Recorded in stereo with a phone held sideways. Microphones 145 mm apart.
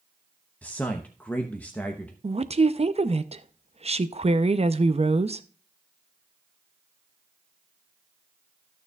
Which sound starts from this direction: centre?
A man speaking, at 0.6 s.